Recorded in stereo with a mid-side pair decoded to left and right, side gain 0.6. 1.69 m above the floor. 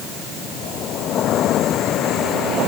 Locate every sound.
Only background noise.